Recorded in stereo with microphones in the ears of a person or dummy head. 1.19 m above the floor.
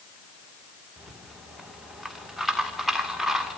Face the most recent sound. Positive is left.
turn(degrees=-5)  # may be behind; listen again after turning